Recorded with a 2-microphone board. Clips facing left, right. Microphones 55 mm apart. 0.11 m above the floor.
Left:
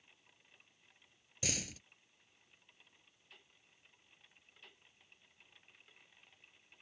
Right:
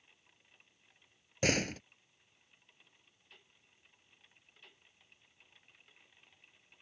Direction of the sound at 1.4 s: 50° right (ahead or behind).